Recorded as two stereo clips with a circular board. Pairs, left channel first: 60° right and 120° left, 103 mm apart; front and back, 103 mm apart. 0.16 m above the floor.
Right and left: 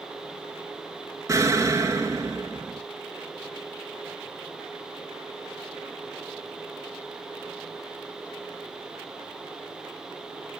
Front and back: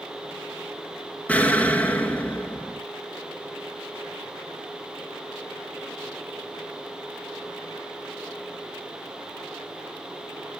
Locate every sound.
1.3 s an explosion: 70° left, 0.8 m